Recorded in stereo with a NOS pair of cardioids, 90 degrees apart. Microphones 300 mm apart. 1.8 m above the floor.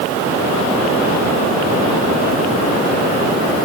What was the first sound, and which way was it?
Only background noise.